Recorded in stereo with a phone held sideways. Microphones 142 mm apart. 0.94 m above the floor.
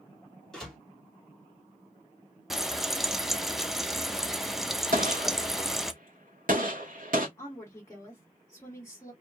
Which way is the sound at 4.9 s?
75° right (ahead or behind).